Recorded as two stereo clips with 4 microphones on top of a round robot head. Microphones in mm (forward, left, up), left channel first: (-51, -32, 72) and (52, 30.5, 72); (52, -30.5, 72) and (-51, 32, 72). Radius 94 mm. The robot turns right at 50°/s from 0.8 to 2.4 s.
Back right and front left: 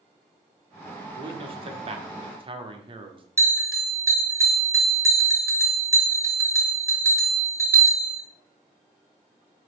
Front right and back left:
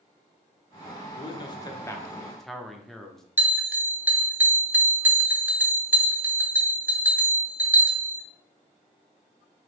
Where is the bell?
85° left, 1.1 m.